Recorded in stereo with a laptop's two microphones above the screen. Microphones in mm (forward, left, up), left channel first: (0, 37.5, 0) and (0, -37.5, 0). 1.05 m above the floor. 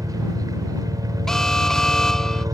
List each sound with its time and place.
0.0 s a helicopter: 55° right (ahead or behind)
1.3 s an alarm: 5° left (ahead or behind)